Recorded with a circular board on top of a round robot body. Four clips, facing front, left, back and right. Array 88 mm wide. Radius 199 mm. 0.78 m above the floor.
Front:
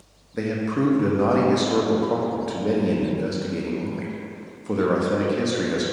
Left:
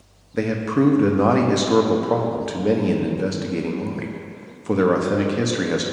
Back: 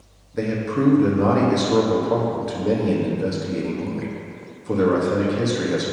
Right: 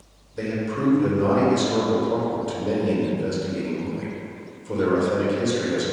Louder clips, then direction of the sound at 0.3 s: Left 6 dB, back 1 dB; 85° left.